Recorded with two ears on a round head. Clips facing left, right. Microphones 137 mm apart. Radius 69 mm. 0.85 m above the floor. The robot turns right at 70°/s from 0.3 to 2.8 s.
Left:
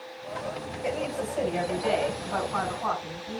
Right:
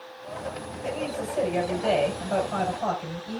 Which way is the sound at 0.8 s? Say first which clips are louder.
Even; 155° left.